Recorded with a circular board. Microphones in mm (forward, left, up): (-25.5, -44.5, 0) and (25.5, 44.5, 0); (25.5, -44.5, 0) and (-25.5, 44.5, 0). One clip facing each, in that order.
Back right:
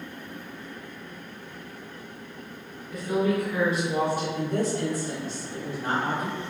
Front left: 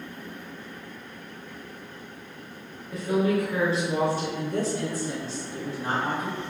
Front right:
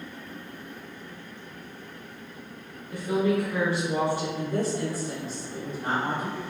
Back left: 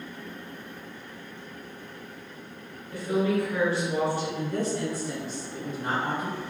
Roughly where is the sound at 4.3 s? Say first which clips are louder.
Back right 1 dB, front right 1 dB; behind right.